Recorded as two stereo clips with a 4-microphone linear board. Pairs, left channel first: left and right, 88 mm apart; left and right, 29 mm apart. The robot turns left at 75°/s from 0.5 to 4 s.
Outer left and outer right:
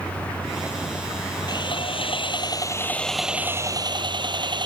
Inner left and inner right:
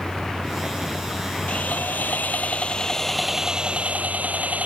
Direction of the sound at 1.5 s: 130° left.